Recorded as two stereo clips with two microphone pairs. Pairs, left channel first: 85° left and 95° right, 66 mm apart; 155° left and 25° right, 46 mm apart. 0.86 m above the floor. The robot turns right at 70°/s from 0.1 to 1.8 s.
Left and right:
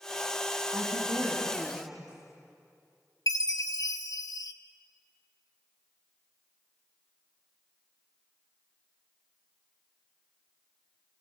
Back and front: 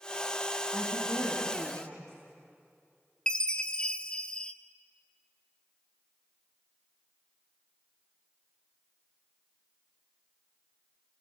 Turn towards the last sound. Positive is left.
turn(degrees=85)